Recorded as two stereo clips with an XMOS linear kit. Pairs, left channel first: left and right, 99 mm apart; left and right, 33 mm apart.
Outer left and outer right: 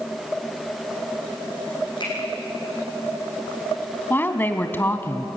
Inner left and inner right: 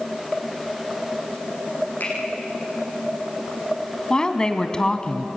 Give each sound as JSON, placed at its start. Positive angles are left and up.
{"t": 2.0, "sound": "a finger snap", "side_deg": 50, "distance_m": 7.5}
{"t": 4.1, "sound": "a woman speaking", "side_deg": 20, "distance_m": 1.5}